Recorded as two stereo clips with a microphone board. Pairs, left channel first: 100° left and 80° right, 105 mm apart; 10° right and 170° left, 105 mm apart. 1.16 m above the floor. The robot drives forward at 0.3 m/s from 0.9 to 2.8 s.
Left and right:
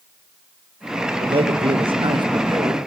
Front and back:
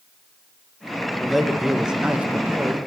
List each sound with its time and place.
1.2 s a man speaking: 100° right, 1.4 m; by 2.8 s 120° right, 1.5 m